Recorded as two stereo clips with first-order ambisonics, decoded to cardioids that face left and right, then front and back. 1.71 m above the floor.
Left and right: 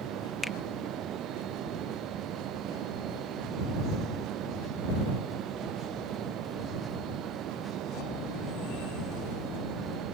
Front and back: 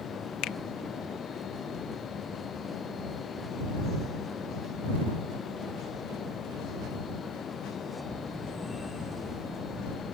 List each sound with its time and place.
0.4 s a finger snap: 15° left